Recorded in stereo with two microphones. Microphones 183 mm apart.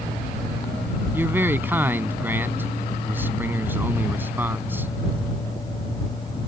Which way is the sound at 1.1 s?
10° right (ahead or behind).